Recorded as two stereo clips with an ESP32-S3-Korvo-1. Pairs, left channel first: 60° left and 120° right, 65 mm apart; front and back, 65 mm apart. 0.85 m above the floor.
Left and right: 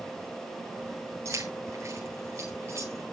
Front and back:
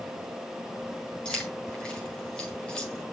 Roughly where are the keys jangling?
Right.